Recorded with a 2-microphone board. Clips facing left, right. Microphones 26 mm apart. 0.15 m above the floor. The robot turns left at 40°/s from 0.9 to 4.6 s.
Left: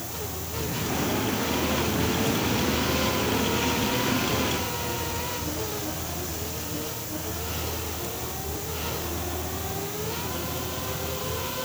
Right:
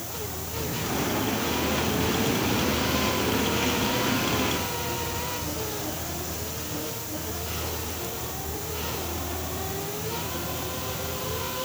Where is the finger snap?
I don't hear a finger snap.